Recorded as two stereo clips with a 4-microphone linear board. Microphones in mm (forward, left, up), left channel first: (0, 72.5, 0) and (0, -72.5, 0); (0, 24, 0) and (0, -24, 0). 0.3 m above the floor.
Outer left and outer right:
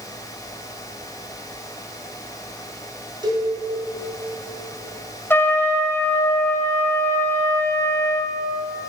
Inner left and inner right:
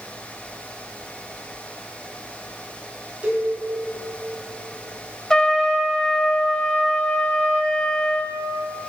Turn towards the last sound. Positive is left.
turn(degrees=15)  # may be behind; listen again after turning